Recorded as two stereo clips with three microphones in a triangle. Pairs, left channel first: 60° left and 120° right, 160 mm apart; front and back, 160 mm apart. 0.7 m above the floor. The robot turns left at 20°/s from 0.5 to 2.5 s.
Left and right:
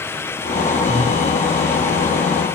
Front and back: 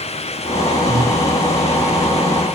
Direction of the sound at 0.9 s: 145° right.